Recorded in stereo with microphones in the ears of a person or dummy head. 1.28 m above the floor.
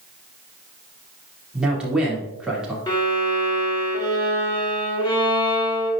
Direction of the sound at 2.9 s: 25° left (ahead or behind).